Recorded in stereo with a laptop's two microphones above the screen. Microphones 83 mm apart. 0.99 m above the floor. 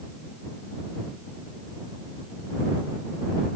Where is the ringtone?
I don't hear a ringtone.